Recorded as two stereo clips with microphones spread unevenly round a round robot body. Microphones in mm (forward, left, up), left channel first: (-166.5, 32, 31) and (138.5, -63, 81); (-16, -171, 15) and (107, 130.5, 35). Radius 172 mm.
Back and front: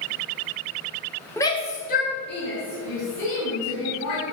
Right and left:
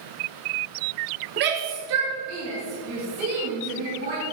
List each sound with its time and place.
1.4 s a shout: 105° left, 0.8 m; by 4.2 s 110° left, 3.5 m